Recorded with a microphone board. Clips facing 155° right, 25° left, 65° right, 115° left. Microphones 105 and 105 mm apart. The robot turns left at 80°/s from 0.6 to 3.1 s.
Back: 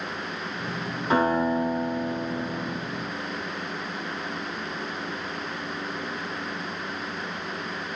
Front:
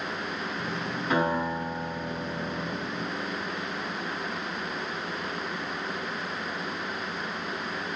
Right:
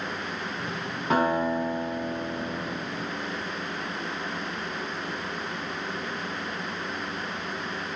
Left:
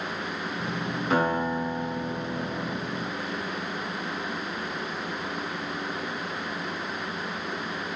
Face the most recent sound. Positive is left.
turn(degrees=105)